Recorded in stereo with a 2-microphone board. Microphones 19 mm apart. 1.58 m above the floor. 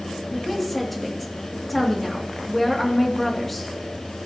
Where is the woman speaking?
5° left (ahead or behind), 2.5 m.